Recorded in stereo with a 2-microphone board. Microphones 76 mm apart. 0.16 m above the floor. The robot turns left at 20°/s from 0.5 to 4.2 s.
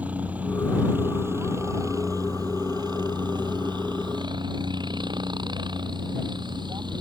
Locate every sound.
0.0 s a helicopter: 20° right (ahead or behind); by 7.0 s 75° right (ahead or behind)